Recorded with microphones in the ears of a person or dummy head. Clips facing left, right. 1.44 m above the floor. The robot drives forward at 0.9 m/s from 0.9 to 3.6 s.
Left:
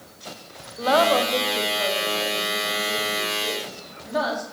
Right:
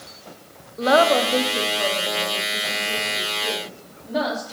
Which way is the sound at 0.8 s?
35° right (ahead or behind).